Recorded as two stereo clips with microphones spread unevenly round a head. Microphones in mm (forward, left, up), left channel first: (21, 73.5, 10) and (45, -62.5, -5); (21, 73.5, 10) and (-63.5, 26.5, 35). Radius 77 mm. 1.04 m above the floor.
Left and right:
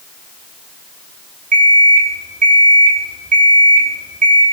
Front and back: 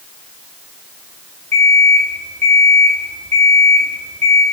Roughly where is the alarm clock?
Ahead right.